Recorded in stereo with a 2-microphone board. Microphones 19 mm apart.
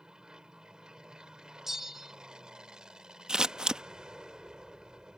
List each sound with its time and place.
0.0 s an aircraft: 45° right (ahead or behind)
1.7 s a bell: 20° right (ahead or behind)
3.3 s scissors: 45° right (ahead or behind)